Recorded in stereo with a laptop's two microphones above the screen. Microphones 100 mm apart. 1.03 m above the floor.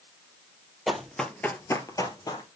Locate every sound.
0.9 s running footsteps: 5° right (ahead or behind), 1.5 m; by 2.5 s 40° left (ahead or behind), 1.7 m